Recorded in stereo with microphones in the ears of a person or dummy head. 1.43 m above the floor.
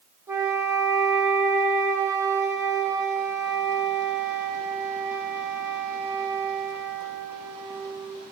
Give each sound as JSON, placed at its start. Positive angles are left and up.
{"t": 0.3, "sound": "a flute", "side_deg": -20, "distance_m": 1.3}